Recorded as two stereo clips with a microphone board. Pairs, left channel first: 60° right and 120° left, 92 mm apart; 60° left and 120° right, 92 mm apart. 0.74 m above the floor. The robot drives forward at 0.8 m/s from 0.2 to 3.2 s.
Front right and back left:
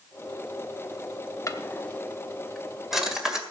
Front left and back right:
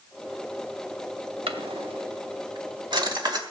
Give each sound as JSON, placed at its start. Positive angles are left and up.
{"t": 1.5, "sound": "a drawer", "azimuth_deg": -115, "distance_m": 0.8}